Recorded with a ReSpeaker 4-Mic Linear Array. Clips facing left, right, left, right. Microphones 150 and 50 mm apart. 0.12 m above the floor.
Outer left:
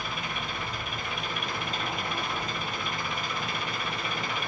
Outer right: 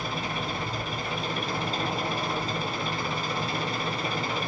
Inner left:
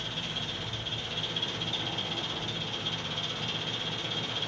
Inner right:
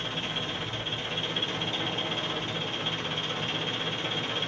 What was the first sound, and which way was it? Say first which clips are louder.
An engine running: outer right 4 dB, inner right 4 dB; 35° right (ahead or behind).